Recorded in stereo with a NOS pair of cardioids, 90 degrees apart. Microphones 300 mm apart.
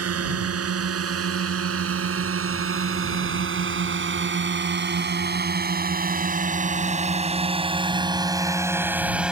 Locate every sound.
0.0 s a drone: 50° right; by 9.3 s straight ahead